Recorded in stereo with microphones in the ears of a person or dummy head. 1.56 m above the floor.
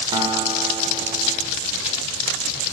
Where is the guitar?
20° right (ahead or behind), 2 m.